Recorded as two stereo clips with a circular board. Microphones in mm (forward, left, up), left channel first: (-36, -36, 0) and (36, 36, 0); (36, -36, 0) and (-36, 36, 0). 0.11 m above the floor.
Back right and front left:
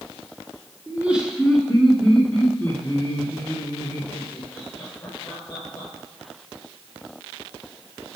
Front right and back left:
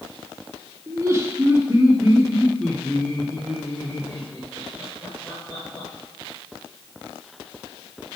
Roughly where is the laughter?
Behind left.